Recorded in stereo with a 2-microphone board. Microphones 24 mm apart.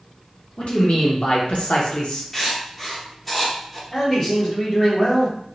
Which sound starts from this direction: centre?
Writing, at 2.3 s.